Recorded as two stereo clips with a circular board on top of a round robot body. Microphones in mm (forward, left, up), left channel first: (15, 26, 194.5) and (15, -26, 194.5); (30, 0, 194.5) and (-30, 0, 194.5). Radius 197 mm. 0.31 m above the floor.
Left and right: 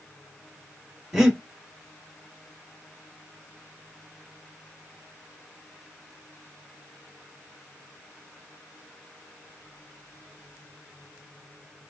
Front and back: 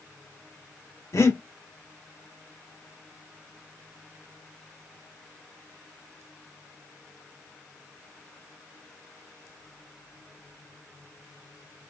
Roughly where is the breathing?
Ahead.